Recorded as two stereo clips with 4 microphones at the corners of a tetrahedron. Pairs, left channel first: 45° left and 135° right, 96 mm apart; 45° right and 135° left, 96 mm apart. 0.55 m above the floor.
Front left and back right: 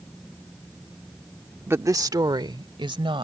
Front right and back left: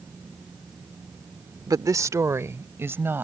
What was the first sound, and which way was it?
A woman speaking, 165° left.